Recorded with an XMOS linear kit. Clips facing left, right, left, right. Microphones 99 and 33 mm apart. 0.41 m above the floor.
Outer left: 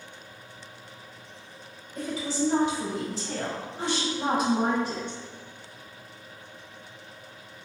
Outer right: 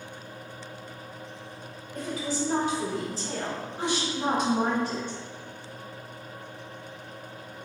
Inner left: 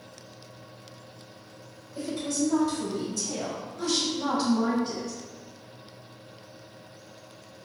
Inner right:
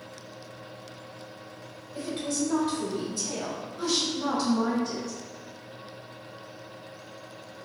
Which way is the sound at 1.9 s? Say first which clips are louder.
Outer left 2 dB, inner left 1 dB; 50° right (ahead or behind).